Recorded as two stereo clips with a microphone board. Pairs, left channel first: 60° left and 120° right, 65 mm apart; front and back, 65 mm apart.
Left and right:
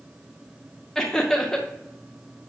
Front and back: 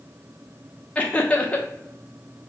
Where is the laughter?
5° right, 0.7 m.